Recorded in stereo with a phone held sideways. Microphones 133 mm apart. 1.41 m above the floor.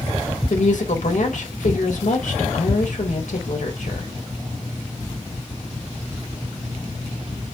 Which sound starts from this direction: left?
A woman speaking, at 0.5 s.